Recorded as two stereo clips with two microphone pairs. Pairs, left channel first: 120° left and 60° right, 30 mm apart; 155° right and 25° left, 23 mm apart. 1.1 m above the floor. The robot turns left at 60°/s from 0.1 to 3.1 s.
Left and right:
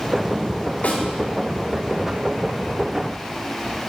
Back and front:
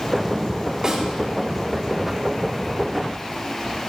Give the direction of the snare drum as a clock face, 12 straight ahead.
9 o'clock.